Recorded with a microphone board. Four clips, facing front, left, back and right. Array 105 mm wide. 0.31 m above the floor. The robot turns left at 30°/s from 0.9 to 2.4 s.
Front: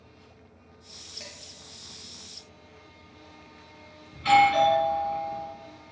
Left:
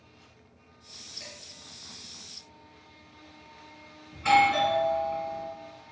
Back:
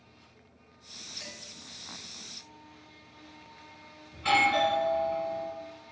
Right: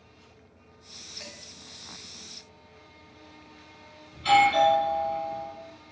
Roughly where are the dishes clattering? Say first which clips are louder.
Right 2 dB, even; ahead right.